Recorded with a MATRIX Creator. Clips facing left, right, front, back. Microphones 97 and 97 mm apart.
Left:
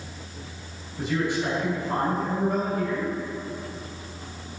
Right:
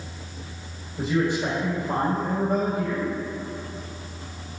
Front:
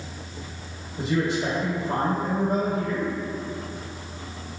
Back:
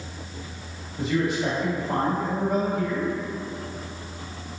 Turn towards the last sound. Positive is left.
turn(degrees=-25)